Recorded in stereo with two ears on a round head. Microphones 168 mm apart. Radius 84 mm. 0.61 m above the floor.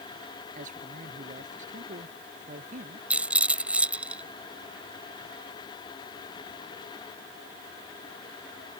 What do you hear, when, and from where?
0.6 s a man speaking: 45° right (ahead or behind)
3.1 s a rattle: 10° right (ahead or behind)